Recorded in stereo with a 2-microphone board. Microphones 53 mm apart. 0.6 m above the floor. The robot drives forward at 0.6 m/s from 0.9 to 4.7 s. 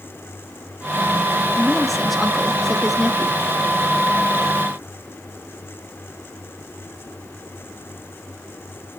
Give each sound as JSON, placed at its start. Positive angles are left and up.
{"t": 1.6, "sound": "a woman speaking", "side_deg": 0, "distance_m": 0.6}